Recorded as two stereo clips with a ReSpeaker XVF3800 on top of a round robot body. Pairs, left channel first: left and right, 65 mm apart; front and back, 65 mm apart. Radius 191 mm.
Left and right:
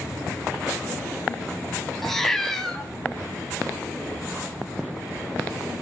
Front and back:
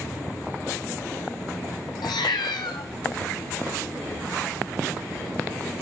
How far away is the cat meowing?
About 0.7 m.